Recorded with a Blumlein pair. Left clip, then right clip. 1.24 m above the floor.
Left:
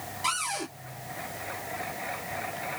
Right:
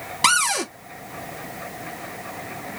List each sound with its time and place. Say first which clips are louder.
0.2 s a cupboard door: right 11 dB; 50° right, 1.1 m